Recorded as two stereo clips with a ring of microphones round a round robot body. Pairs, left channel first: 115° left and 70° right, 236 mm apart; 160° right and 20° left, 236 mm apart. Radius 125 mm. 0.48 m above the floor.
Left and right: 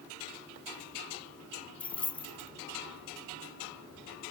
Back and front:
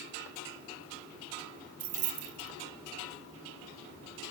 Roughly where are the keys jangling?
Ahead left.